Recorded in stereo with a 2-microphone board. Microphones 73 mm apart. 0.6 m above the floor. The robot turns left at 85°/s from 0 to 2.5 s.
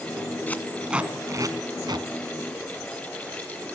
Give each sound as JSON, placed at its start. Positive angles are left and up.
{"t": 0.5, "sound": "tape being pulled", "side_deg": 25, "distance_m": 1.5}